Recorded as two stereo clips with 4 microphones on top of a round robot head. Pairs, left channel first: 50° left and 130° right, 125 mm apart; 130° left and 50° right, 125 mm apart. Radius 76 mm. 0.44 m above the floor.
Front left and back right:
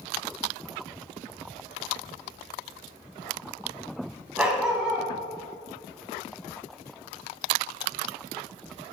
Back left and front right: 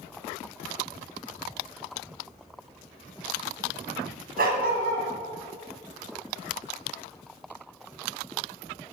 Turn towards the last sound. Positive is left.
turn(degrees=-50)